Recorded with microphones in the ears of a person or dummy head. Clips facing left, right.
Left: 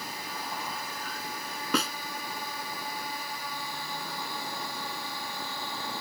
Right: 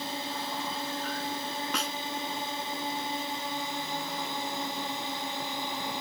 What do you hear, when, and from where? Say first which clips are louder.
0.0 s a drone: right 4 dB; 30° right (ahead or behind); by 6.0 s 25° right (ahead or behind)
1.7 s a snare drum: left 10 dB; 50° left (ahead or behind)